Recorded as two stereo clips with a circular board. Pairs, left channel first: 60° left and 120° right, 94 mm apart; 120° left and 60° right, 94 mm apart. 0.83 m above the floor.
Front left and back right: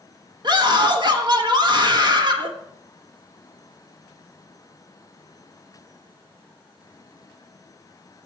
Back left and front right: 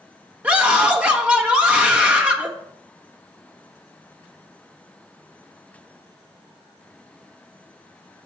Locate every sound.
0.4 s a scream: 135° right, 1.0 m